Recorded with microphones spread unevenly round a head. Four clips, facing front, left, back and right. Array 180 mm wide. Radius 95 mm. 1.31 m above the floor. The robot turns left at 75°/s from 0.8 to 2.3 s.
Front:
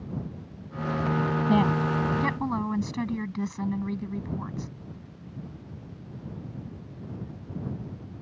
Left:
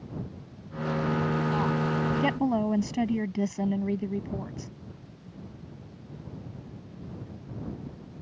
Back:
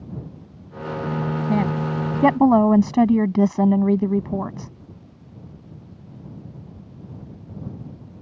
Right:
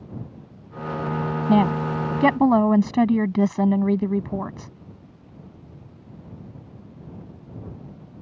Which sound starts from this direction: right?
A woman speaking, at 1.5 s.